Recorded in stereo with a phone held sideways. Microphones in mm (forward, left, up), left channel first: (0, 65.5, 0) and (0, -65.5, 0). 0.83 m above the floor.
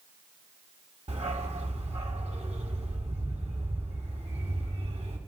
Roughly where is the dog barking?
Right.